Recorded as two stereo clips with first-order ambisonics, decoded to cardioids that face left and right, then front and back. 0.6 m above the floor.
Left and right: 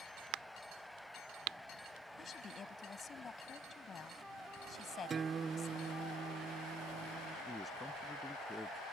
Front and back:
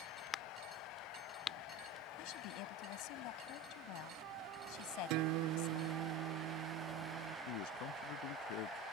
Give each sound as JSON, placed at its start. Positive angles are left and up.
{"t": 0.3, "sound": "a crack", "azimuth_deg": -65}
{"t": 2.2, "sound": "a woman speaking", "azimuth_deg": 20}
{"t": 5.1, "sound": "a guitar", "azimuth_deg": -160}
{"t": 7.5, "sound": "a man speaking", "azimuth_deg": 5}